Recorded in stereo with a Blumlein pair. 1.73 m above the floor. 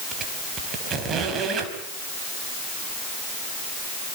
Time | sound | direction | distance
0.1 | a squeak | 25° right | 4.5 m